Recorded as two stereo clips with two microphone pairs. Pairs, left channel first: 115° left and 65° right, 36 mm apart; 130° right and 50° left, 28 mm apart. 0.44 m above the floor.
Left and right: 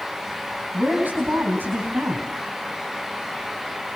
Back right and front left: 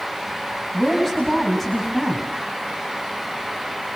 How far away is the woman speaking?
About 3.5 m.